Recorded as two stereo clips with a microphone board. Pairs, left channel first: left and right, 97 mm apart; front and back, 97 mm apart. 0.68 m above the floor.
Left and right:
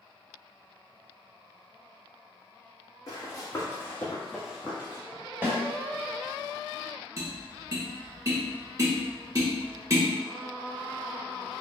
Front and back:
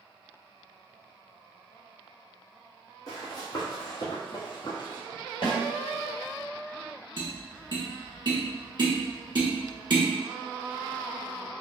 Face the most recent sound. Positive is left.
turn(degrees=-145)